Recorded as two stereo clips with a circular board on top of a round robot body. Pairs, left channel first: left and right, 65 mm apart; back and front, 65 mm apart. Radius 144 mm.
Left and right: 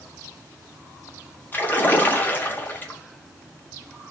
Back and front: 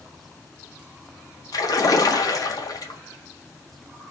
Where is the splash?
155° left, 0.9 m.